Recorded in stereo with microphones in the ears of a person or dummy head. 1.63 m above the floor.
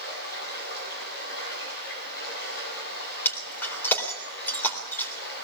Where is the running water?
70° left (ahead or behind), 8 m.